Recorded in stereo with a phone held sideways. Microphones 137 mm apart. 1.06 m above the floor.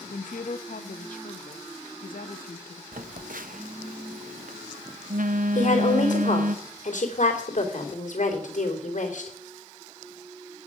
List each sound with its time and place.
0.1 s a woman speaking: 75° left (ahead or behind), 1.1 m
2.9 s a phone buzzing: 80° right, 0.6 m
5.5 s a woman speaking: 65° left (ahead or behind), 3 m